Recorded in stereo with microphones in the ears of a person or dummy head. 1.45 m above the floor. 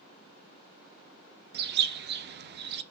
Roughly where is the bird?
Right.